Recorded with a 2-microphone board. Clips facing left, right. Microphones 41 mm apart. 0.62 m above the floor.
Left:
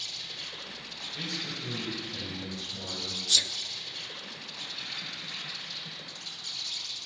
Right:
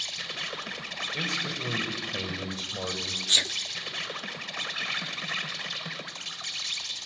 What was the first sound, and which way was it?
An insect, 85° right.